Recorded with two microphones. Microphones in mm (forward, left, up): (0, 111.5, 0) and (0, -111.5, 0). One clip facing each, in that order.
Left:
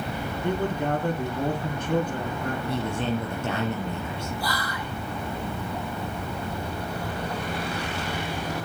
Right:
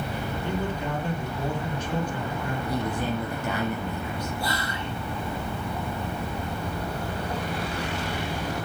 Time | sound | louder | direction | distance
0.4 | a man speaking | left 5 dB | 55° left (ahead or behind) | 3.5 m
2.7 | a man speaking | even | 25° left (ahead or behind) | 4.5 m
4.4 | whispering | right 1 dB | 25° right (ahead or behind) | 1.4 m